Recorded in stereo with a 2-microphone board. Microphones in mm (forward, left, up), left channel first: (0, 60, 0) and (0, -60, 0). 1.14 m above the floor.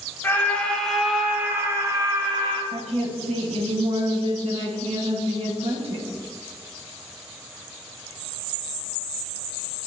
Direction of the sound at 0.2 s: 20° left (ahead or behind).